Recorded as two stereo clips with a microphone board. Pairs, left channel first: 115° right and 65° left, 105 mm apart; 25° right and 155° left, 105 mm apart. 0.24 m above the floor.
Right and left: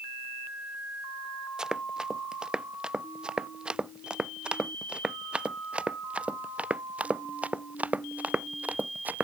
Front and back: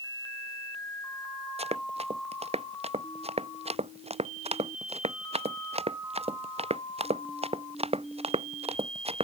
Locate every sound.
1.6 s running footsteps: 150° left; by 9.2 s 140° left